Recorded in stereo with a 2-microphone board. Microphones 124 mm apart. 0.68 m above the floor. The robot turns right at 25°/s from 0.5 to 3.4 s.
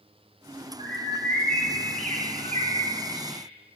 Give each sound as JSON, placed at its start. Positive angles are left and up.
{"t": 0.8, "sound": "a bird", "azimuth_deg": -135, "distance_m": 4.0}